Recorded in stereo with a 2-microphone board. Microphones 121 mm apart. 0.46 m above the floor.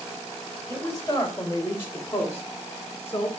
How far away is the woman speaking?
About 2.5 m.